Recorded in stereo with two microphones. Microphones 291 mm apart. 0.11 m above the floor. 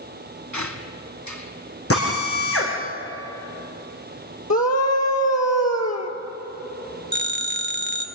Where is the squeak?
75° left (ahead or behind), 1.5 m.